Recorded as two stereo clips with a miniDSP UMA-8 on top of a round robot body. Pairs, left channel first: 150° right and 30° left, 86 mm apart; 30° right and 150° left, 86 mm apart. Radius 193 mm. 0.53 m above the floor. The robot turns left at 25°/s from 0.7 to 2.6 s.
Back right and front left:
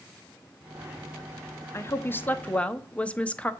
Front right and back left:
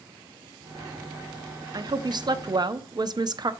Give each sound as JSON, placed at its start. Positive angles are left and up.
{"t": 1.7, "sound": "a woman speaking", "azimuth_deg": 160, "distance_m": 1.2}